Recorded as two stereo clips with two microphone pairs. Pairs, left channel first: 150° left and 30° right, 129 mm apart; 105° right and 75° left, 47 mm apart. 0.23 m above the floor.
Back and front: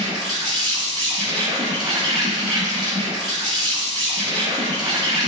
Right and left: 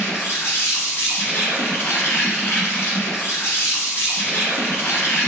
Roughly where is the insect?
Right.